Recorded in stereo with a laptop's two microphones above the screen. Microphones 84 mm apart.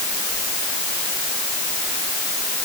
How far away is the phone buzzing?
I don't hear a phone buzzing.